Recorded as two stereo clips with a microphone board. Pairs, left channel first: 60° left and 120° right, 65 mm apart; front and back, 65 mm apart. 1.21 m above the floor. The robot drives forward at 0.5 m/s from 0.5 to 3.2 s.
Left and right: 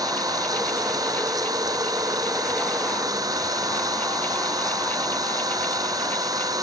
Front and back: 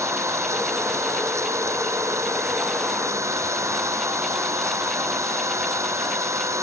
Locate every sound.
0.0 s an engine running: 140° right